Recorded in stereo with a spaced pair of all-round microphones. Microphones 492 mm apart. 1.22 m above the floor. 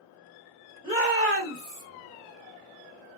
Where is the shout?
10° right (ahead or behind), 1.7 m; by 1.8 s 45° right (ahead or behind), 1.3 m.